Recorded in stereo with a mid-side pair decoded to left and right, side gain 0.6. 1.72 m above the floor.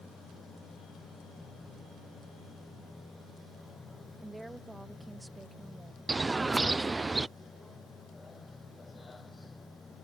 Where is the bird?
20° right.